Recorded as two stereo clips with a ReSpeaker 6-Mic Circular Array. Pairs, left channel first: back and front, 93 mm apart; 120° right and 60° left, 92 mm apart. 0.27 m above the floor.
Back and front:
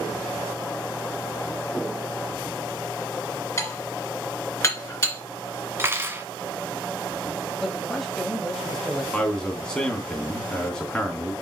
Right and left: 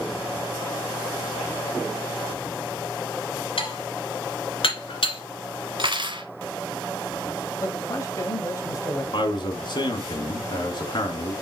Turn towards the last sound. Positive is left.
turn(degrees=-100)